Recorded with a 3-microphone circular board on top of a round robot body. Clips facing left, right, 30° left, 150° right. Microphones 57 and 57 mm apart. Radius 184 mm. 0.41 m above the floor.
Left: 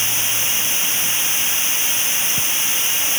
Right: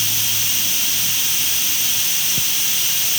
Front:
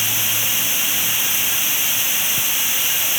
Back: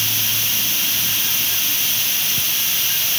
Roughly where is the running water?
Left.